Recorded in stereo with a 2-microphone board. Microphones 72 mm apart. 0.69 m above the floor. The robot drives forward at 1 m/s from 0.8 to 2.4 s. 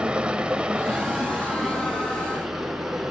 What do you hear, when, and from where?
0.0 s running water: 15° right (ahead or behind), 0.8 m; by 3.1 s 5° right (ahead or behind), 2.5 m